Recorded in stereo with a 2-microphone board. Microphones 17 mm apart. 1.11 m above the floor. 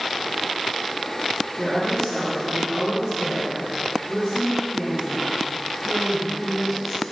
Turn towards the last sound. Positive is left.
turn(degrees=0)  # may be behind; listen again after turning